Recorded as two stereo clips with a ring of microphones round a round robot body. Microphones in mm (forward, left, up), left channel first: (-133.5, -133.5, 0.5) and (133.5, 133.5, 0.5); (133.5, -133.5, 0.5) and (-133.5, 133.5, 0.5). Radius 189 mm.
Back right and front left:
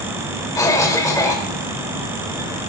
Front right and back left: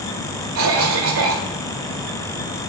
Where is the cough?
150° left, 1.7 m.